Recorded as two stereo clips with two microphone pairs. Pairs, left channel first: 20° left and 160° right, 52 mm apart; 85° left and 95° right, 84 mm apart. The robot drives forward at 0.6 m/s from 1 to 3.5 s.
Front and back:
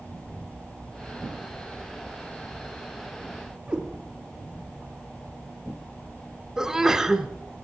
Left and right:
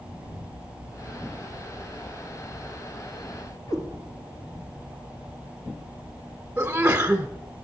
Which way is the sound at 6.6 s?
115° right.